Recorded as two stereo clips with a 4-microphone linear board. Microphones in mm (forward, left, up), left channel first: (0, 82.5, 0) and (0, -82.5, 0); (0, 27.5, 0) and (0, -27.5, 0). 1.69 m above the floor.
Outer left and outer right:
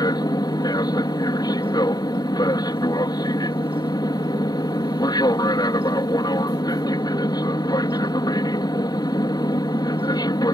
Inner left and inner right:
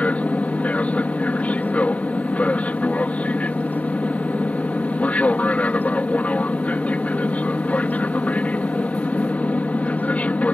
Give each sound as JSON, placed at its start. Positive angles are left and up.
{"t": 0.0, "sound": "an aircraft", "side_deg": 25}